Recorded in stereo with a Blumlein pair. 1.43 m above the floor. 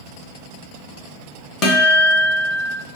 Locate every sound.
1.6 s a guitar: 30° left, 0.7 m